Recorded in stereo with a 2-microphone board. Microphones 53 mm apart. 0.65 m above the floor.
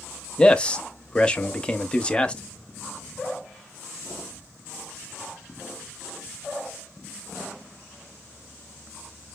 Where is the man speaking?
20° left (ahead or behind), 0.6 m.